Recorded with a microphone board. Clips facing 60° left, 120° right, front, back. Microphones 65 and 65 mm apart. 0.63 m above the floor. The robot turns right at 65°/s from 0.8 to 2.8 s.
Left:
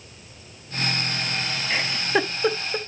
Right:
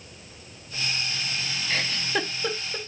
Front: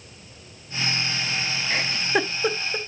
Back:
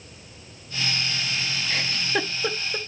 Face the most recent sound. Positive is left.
turn(degrees=80)